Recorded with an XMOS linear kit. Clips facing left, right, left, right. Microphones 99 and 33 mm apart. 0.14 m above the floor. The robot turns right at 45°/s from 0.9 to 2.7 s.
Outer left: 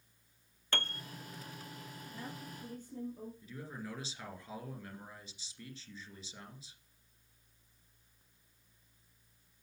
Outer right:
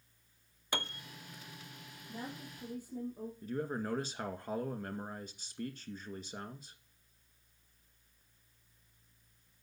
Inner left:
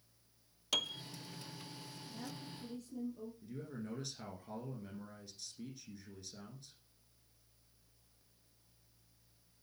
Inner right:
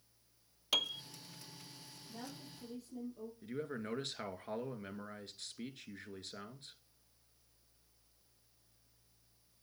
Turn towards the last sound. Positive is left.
turn(degrees=-50)  # may be behind; listen again after turning